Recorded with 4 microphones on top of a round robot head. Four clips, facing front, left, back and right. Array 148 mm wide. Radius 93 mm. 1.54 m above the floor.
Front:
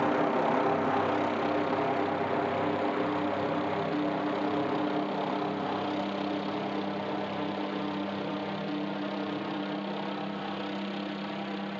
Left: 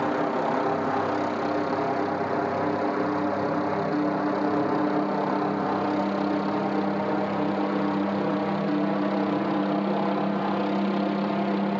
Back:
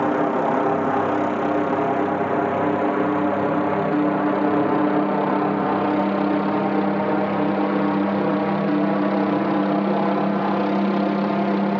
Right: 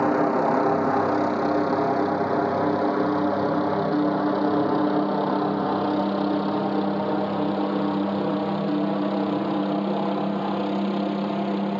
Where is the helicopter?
140° right; by 11.8 s 165° right.